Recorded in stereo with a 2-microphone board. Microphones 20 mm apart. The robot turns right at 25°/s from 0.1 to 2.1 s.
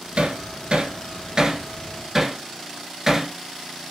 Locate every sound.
0.2 s hammering: 65° right (ahead or behind), 1.4 m; by 3.3 s 20° right (ahead or behind), 1.4 m